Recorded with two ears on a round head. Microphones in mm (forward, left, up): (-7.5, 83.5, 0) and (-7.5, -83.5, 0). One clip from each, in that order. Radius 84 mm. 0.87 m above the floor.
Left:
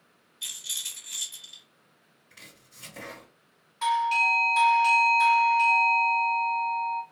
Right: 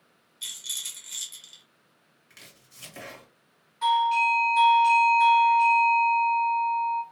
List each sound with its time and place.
0.4 s a rattle: 10° right (ahead or behind), 1.0 m
2.3 s chopping: 60° right (ahead or behind), 1.9 m
3.8 s a doorbell: 25° left (ahead or behind), 0.9 m